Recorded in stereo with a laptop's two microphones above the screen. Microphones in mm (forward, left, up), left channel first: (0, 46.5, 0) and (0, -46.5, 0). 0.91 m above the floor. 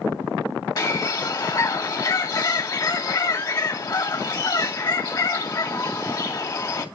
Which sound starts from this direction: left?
A bird, at 0.8 s.